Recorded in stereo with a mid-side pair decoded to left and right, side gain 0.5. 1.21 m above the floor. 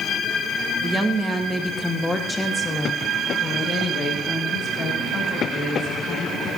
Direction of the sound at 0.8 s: 10° right.